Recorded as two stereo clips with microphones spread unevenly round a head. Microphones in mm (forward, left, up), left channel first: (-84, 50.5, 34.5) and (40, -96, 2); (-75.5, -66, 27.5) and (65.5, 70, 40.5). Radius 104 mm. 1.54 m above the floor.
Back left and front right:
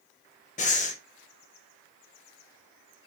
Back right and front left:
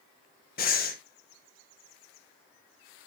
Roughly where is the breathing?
Behind.